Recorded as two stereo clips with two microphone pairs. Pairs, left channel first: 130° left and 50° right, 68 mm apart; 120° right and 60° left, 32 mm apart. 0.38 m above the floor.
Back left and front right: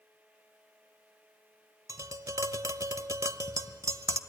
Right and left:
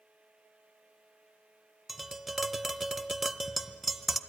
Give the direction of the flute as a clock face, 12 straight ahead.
No flute in this recording.